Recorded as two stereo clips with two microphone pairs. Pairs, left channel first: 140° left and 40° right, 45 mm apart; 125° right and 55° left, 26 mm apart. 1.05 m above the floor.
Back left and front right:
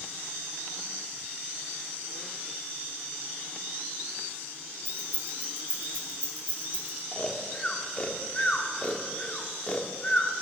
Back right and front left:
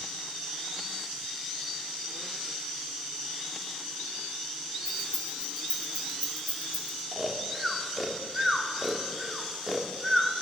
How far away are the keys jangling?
About 1.6 m.